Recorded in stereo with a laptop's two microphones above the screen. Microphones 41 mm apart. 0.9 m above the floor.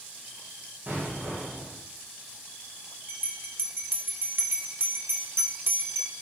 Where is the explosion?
50° right (ahead or behind), 5.5 m.